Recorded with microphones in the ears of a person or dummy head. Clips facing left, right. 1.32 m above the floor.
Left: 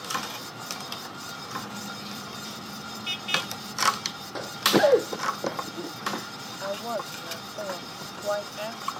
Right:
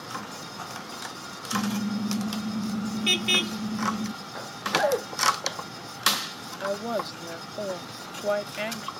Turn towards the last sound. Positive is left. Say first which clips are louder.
# right 3 dB
turn(degrees=-40)  # may be behind; listen again after turning